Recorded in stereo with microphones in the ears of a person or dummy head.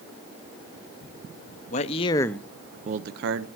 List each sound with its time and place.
1.7 s a man speaking: 35° left (ahead or behind), 1.1 m; by 3.5 s 70° right (ahead or behind), 1.1 m